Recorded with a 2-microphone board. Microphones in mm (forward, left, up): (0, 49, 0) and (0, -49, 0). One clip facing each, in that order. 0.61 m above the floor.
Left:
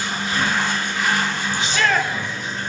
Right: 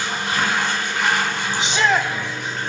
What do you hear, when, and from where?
0.0 s running water: 75° right (ahead or behind), 3.5 m
1.6 s a shout: 20° right (ahead or behind), 0.6 m